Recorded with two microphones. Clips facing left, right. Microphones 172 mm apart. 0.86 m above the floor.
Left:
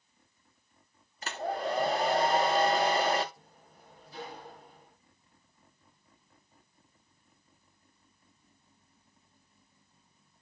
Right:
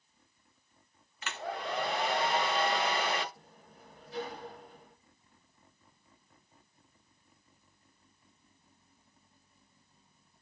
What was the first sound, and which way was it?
A hair dryer, 40° left (ahead or behind).